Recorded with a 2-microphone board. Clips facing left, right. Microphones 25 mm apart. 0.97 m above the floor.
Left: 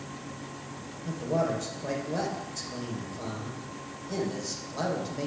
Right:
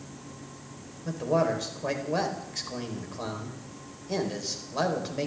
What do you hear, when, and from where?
1.1 s a man speaking: 30° right (ahead or behind), 3.5 m